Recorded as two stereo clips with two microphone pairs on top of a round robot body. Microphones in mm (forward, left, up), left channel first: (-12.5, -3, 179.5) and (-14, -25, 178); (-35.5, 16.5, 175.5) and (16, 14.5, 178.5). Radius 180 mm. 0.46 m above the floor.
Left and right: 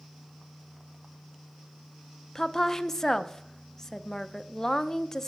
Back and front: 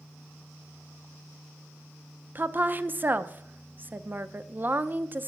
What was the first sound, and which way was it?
A woman speaking, 25° left.